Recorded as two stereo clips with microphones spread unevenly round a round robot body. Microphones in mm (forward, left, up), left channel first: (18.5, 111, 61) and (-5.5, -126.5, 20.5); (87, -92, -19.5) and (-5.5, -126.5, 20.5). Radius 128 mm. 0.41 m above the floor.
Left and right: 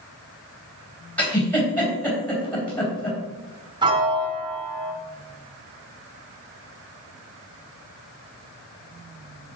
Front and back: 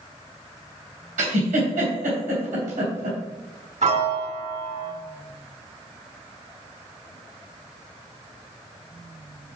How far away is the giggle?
About 3 m.